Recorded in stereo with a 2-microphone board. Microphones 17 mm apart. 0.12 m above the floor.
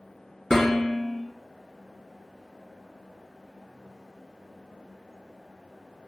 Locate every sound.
0.5 s dishes clattering: 45° left (ahead or behind), 1.3 m